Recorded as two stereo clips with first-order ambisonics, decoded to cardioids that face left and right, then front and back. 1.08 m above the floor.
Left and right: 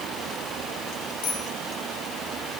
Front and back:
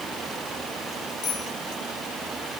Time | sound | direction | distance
1.2 | a bicycle bell | 55° left | 10 m